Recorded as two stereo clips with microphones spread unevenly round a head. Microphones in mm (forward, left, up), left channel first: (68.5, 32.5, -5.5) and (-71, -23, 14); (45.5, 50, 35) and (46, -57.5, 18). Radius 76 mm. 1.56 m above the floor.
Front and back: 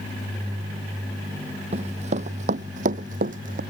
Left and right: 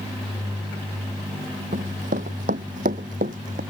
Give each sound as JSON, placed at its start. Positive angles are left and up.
{"t": 1.7, "sound": "running footsteps", "azimuth_deg": -115}